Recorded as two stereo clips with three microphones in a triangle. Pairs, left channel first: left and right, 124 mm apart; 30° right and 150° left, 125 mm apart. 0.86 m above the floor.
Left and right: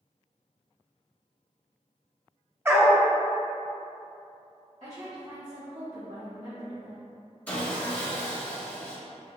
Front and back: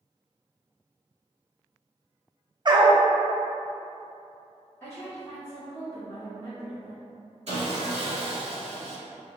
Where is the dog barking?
160° right, 0.5 m.